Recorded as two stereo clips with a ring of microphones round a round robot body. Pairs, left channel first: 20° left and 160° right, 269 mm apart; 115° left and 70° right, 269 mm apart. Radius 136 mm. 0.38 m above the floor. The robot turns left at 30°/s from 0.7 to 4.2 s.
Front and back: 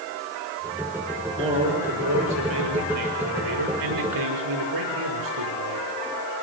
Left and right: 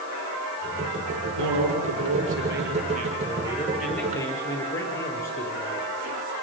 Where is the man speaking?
80° right, 6.5 m; by 5.9 s 165° right, 6.5 m.